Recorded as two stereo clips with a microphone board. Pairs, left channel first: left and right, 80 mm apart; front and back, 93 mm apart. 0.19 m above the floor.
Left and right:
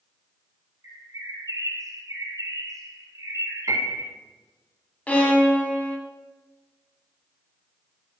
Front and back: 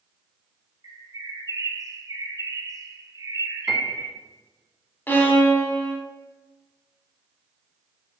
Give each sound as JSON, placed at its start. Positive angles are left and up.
{"t": 0.8, "sound": "a bird", "azimuth_deg": -130, "distance_m": 0.7}
{"t": 3.7, "sound": "a piano", "azimuth_deg": -90, "distance_m": 0.7}
{"t": 5.1, "sound": "a violin", "azimuth_deg": 40, "distance_m": 0.6}